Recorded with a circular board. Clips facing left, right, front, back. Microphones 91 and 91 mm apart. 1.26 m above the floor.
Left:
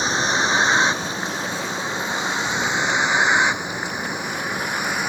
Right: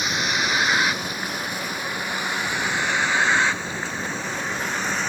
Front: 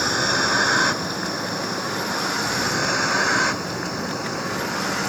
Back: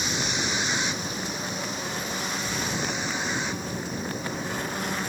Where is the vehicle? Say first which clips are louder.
Left 4 dB, front 8 dB; 30° left; by 5.1 s 10° left.